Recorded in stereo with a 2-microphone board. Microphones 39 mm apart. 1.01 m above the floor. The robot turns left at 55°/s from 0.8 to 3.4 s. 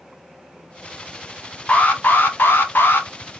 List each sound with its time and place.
1.7 s an alarm: 145° left, 0.7 m; by 3.1 s 65° left, 0.7 m